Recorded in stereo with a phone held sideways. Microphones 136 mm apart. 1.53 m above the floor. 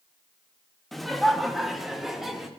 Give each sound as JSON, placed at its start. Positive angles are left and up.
{"t": 0.9, "sound": "laughter", "side_deg": 0, "distance_m": 1.2}